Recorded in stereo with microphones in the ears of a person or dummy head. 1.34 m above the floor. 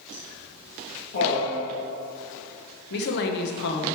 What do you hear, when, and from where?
0.1 s laughter: 45° left (ahead or behind), 1.4 m; by 1.6 s 70° left (ahead or behind), 1.9 m
2.9 s a woman speaking: 60° left (ahead or behind), 1.2 m